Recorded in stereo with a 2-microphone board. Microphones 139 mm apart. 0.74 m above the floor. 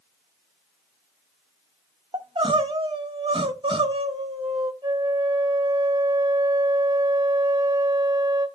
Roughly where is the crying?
Right.